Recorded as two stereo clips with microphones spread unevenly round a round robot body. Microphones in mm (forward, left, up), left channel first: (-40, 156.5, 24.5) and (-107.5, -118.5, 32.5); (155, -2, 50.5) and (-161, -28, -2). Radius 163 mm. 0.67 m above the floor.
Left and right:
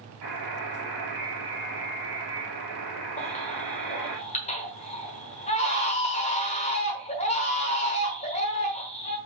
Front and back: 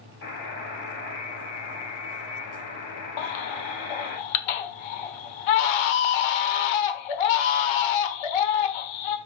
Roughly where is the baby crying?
Ahead.